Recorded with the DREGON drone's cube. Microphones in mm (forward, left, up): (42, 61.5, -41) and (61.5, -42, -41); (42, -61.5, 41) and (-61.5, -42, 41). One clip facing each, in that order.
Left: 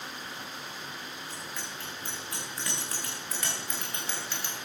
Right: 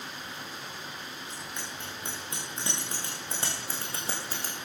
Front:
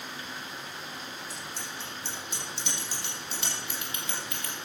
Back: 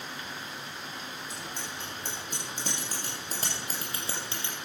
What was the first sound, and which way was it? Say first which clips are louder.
A bicycle bell: even, back 1 dB; 150° right.